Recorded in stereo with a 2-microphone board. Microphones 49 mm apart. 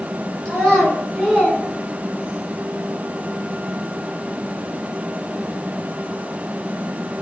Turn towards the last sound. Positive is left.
turn(degrees=-30)  # may be behind; listen again after turning